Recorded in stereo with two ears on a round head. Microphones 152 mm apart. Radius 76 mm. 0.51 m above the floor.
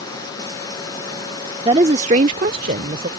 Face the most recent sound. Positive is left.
turn(degrees=-55)  # may be behind; listen again after turning